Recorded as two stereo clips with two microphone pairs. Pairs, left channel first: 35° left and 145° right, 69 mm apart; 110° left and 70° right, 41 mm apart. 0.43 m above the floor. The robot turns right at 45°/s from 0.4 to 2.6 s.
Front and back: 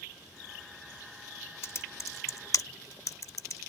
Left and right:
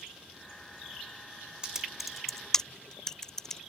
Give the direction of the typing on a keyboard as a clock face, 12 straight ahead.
12 o'clock.